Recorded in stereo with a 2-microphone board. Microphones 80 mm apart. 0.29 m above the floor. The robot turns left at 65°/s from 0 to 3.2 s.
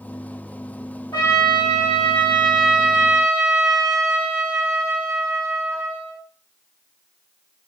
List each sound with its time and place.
1.1 s a trumpet: 95° left, 1.1 m; by 6.2 s 40° right, 1.1 m